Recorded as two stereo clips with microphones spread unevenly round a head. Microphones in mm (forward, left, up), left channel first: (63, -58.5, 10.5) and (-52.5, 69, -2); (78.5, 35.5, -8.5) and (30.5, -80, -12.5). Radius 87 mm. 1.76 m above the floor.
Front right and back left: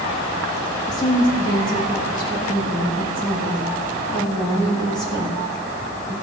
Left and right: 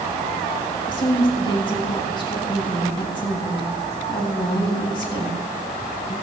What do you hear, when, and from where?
0.9 s a woman speaking: 20° left, 3 m